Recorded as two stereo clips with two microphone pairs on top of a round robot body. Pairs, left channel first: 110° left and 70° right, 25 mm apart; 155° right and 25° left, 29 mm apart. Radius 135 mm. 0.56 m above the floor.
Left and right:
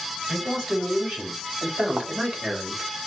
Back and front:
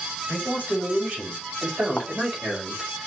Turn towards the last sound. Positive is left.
turn(degrees=-120)